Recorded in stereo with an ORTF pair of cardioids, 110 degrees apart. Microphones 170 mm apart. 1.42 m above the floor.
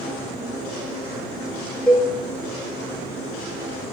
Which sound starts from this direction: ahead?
A cowbell, at 1.9 s.